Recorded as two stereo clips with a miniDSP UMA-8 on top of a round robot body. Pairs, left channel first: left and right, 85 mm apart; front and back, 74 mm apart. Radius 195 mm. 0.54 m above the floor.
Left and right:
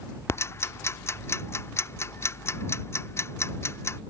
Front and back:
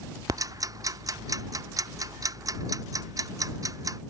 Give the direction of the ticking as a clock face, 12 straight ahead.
7 o'clock.